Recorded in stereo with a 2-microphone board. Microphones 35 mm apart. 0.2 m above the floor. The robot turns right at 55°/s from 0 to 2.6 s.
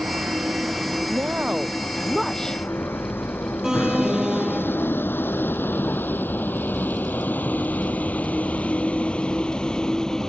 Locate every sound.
0.0 s a vehicle: 65° right (ahead or behind); by 10.3 s 20° left (ahead or behind)
1.1 s a woman speaking: 60° right; by 2.6 s 20° left
3.6 s an alarm: 15° right (ahead or behind)